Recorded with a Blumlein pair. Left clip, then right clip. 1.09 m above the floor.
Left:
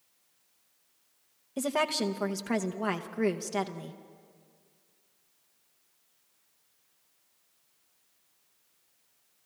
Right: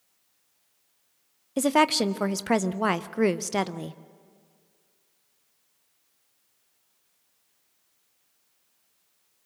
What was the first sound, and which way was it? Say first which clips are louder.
A woman speaking: right 7 dB; 70° right.